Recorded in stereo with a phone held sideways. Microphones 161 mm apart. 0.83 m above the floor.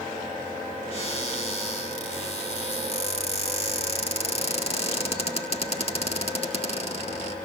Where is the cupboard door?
40° left (ahead or behind), 3.5 m.